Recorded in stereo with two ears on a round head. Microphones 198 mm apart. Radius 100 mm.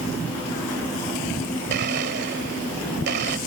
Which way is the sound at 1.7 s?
50° right (ahead or behind).